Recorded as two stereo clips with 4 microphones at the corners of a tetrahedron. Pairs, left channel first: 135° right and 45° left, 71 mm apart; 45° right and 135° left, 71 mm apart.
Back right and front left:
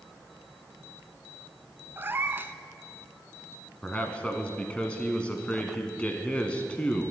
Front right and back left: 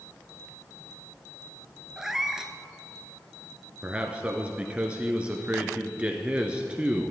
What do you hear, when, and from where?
2.0 s a cat meowing: 60° left, 0.6 m
3.8 s a man speaking: 175° left, 1.1 m